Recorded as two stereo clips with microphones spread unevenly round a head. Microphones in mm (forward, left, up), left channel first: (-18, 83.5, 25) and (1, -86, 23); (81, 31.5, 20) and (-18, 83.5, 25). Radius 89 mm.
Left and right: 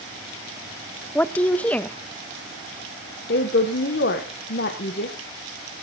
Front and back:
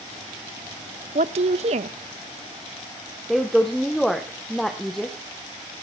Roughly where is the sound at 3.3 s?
Ahead left.